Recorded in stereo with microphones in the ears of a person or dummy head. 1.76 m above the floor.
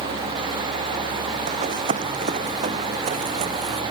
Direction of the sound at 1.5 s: 45° right (ahead or behind).